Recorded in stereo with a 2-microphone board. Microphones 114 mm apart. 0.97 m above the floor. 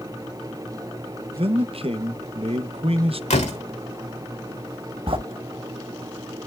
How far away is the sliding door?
About 1.1 m.